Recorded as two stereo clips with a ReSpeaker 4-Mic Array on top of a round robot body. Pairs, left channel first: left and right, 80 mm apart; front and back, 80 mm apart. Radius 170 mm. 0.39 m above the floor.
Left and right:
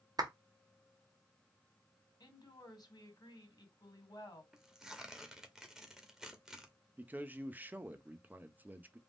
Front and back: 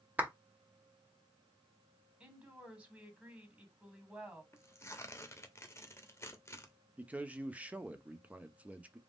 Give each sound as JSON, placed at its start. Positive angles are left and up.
{"t": 0.2, "sound": "a clap", "azimuth_deg": -110, "distance_m": 1.3}
{"t": 2.2, "sound": "a woman speaking", "azimuth_deg": 105, "distance_m": 2.0}
{"t": 4.5, "sound": "tearing paper", "azimuth_deg": -10, "distance_m": 1.1}
{"t": 7.0, "sound": "a man speaking", "azimuth_deg": -130, "distance_m": 0.8}